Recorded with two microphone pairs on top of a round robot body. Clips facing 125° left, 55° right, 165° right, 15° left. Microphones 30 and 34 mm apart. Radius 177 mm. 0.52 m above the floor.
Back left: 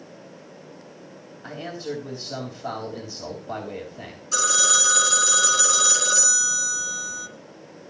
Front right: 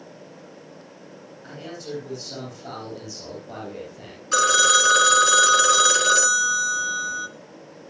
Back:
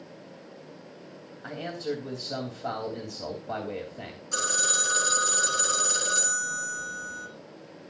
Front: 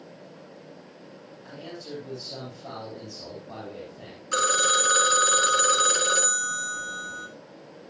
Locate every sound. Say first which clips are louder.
1.4 s a man speaking: back left 4 dB, back 7 dB; 170° right, 3.5 m
4.3 s a phone ringing: front right 5 dB, front 7 dB; 25° right, 1.9 m